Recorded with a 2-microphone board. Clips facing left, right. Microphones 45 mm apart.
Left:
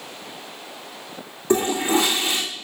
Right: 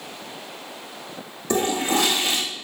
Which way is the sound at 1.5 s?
20° left (ahead or behind).